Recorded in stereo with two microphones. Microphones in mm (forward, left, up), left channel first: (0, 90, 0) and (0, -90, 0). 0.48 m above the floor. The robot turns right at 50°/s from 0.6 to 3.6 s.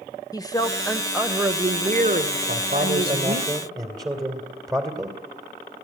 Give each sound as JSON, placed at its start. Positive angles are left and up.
{"t": 0.3, "sound": "a woman speaking", "azimuth_deg": 155, "distance_m": 1.4}
{"t": 2.5, "sound": "a man speaking", "azimuth_deg": -80, "distance_m": 2.5}